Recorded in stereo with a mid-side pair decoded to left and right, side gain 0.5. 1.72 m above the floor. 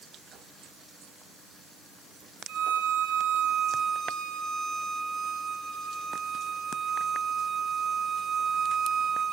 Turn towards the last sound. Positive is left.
turn(degrees=-65)